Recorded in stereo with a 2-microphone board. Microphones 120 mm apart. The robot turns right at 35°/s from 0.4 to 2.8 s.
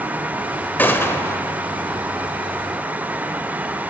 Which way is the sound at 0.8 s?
15° left (ahead or behind).